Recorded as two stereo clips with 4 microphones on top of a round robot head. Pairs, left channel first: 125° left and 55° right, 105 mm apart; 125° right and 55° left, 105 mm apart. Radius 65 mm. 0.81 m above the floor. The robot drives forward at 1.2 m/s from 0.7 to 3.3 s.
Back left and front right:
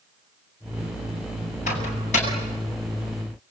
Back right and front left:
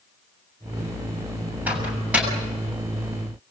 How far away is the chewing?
I don't hear chewing.